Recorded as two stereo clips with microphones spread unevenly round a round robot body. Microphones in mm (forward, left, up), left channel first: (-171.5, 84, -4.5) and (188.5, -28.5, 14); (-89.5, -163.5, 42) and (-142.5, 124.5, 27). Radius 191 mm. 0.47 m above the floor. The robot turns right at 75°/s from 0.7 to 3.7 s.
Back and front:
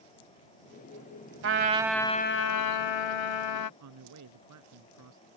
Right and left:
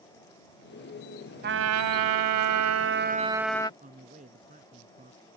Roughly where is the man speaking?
Ahead left.